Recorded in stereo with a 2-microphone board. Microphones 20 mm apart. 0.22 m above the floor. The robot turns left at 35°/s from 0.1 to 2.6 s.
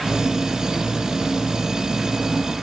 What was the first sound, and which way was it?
Only background noise.